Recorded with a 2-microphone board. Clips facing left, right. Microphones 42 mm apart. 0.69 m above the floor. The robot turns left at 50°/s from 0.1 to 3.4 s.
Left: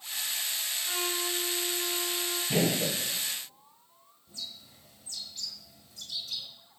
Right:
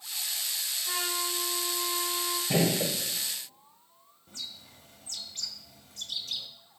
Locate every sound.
0.8 s a trumpet: 10° right, 5 m; by 2.4 s 90° right, 5 m
2.5 s a gunshot: 70° right (ahead or behind), 5 m; by 2.9 s 50° right (ahead or behind), 5 m
4.3 s a bird: 70° right (ahead or behind), 1.6 m